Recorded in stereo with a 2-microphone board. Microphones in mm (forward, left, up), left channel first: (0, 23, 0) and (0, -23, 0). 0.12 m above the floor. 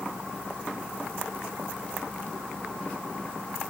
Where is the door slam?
I don't hear a door slam.